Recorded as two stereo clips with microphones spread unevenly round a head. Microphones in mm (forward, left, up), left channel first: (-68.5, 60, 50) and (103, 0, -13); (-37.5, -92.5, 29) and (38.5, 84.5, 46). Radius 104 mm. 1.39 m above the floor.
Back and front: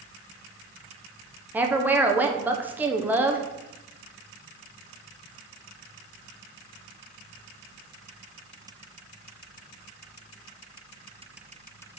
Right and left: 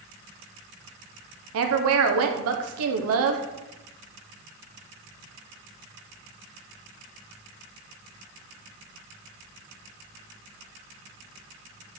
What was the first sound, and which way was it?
A woman speaking, 55° left.